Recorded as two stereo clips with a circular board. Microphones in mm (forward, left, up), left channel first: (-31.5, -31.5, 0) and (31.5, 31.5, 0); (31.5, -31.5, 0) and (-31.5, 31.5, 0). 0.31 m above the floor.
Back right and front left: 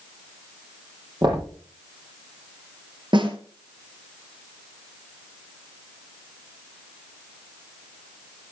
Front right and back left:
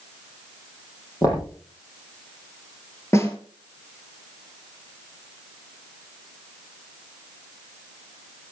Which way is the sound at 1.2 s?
5° left.